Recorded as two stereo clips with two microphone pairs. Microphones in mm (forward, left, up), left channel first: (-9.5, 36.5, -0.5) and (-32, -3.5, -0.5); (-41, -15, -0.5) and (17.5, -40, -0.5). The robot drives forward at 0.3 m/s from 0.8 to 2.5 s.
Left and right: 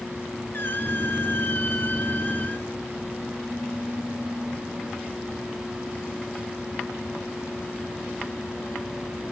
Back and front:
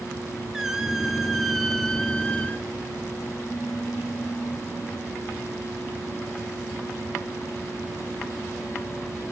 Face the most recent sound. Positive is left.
turn(degrees=95)